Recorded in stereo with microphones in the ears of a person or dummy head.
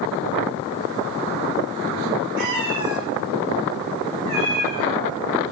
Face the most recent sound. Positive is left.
turn(degrees=-10)  # may be behind; listen again after turning